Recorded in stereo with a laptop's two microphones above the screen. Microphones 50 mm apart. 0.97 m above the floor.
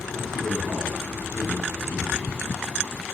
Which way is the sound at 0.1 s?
80° left.